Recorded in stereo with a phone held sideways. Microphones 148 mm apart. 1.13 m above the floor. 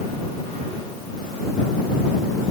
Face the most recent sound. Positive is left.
No sound to turn to.